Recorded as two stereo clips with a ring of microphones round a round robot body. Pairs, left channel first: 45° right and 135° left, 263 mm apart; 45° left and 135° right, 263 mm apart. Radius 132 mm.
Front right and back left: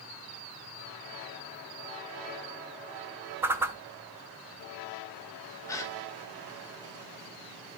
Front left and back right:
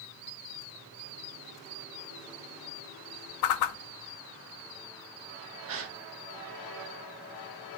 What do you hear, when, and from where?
3.4 s a whoosh: 55° left, 0.7 m
5.7 s a gasp: 120° right, 1.5 m